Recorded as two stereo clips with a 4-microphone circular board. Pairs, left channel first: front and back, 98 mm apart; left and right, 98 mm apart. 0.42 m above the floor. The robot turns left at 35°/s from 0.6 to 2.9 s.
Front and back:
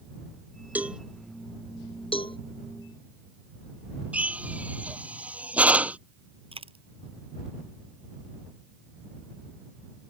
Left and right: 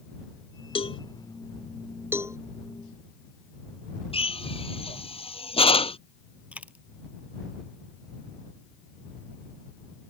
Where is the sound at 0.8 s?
105° left; by 1.0 s 100° left.